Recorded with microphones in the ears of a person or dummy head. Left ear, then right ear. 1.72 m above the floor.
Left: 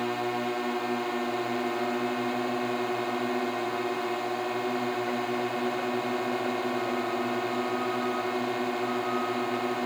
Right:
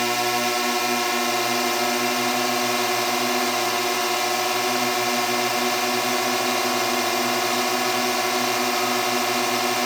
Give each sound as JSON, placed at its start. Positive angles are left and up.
{"t": 0.0, "sound": "a drone", "side_deg": -75}